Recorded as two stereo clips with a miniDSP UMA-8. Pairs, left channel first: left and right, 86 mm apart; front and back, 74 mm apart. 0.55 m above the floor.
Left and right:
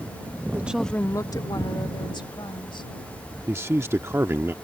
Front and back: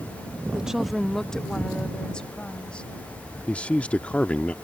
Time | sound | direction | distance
0.5 | a woman speaking | 110° right | ?
3.5 | a man speaking | 60° right | ?